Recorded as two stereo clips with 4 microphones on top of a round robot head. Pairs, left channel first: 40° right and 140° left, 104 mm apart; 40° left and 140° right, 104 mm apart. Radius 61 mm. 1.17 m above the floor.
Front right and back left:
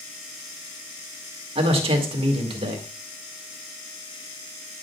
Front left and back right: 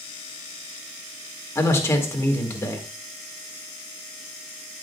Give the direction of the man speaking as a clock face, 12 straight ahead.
8 o'clock.